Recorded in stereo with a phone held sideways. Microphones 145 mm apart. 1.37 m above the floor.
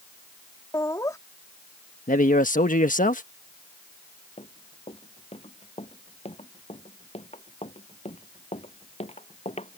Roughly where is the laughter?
Left.